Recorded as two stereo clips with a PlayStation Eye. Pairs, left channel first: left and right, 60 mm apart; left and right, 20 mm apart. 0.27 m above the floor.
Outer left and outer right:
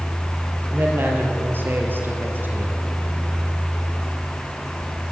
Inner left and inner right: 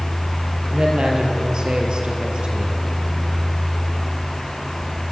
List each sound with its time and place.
0.7 s a man speaking: 35° right (ahead or behind), 5.5 m